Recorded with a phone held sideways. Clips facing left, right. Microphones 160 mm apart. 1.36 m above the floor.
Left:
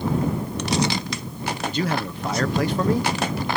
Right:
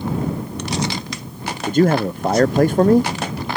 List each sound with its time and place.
1.7 s a man speaking: 50° right (ahead or behind)